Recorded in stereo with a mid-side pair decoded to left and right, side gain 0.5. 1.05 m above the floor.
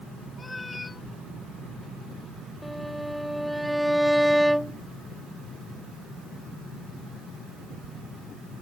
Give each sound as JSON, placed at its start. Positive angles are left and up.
{"t": 0.4, "sound": "a cat meowing", "azimuth_deg": 20}
{"t": 2.6, "sound": "a violin", "azimuth_deg": 0}